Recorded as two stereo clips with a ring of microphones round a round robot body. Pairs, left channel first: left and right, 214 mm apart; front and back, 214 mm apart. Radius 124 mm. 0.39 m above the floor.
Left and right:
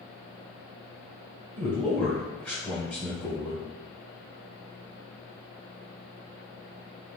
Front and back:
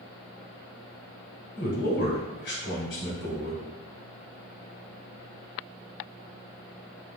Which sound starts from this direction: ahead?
A man speaking, at 1.6 s.